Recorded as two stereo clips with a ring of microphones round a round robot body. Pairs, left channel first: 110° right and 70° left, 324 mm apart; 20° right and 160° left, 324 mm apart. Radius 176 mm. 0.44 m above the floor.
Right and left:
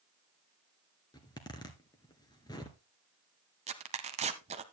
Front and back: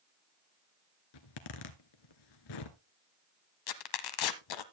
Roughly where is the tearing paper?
Ahead.